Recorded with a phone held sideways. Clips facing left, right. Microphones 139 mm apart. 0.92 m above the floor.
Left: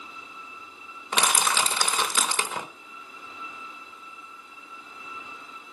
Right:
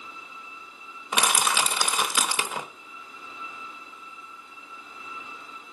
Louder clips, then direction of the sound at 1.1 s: Even; 10° right (ahead or behind).